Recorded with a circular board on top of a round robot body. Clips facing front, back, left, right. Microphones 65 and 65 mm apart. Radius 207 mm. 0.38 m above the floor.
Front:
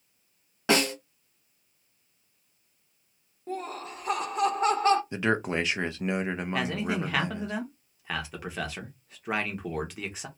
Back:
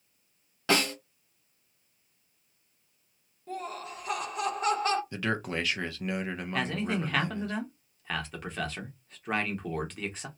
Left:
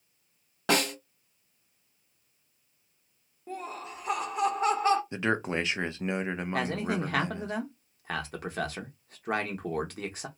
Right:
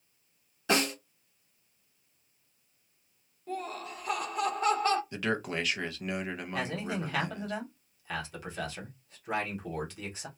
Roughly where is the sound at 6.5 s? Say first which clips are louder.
Even, left 4 dB; left.